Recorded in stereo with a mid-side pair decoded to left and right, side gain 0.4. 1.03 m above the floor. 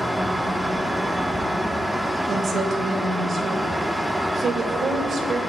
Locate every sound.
0.0 s a fan: 5° right, 1.7 m
2.3 s a woman speaking: 55° right, 2.5 m